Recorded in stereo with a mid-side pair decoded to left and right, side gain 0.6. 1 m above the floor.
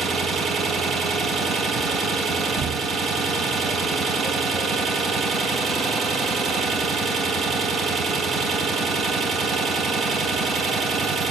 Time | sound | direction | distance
0.0 | an engine running | 20° right | 2 m